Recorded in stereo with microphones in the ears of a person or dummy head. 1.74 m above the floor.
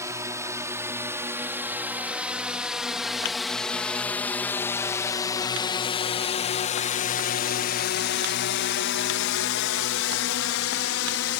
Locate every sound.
0.0 s a drone: 15° right (ahead or behind); by 11.4 s 75° left (ahead or behind)